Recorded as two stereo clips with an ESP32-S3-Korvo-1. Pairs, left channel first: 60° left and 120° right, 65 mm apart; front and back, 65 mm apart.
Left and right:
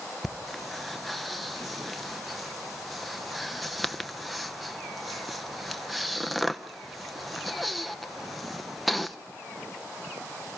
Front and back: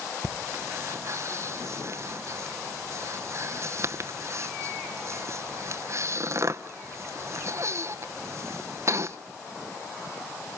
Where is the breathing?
150° left, 0.9 m.